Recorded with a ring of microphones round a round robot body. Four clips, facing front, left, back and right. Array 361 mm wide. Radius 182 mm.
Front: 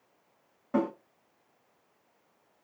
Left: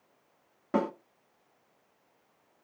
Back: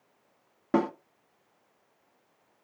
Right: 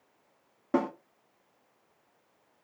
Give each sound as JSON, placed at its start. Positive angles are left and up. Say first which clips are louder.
{"t": 0.7, "sound": "a snare drum", "louder": "right 1 dB, back 2 dB", "azimuth_deg": 175, "distance_m": 1.4}